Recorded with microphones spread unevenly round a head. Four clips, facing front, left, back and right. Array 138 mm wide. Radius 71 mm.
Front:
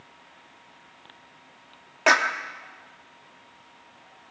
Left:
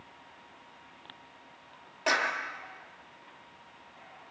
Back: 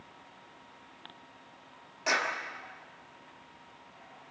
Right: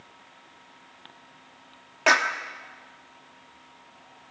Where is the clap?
25° right, 2.5 m.